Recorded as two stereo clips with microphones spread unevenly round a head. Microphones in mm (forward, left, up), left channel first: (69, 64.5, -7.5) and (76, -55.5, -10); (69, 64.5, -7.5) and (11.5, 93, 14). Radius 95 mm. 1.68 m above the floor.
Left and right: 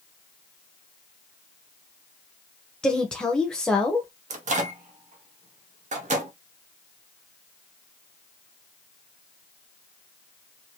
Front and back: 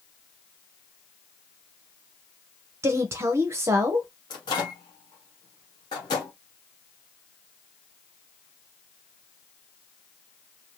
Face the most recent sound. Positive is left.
turn(degrees=-70)